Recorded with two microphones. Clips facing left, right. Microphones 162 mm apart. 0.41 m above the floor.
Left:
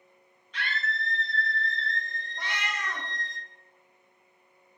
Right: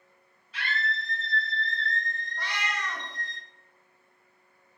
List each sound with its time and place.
0.5 s a scream: 5° right (ahead or behind), 1.9 m; by 3.4 s 40° left (ahead or behind), 1.9 m
2.4 s a cat meowing: 20° left (ahead or behind), 0.6 m